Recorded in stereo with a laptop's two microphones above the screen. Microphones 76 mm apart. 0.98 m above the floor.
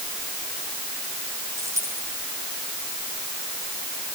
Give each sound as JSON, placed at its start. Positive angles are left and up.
{"t": 1.6, "sound": "a dropped coin", "side_deg": -40, "distance_m": 5.5}